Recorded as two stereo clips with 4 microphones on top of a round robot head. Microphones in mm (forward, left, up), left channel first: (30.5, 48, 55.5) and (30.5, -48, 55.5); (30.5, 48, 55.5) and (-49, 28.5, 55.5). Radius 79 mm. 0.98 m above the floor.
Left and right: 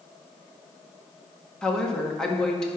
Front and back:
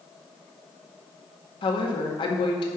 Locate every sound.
1.6 s a woman speaking: 5° left, 1.7 m